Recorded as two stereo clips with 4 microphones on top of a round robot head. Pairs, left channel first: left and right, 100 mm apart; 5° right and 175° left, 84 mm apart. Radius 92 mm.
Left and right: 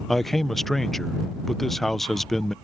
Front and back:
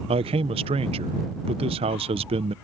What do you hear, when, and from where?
0.1 s a man speaking: straight behind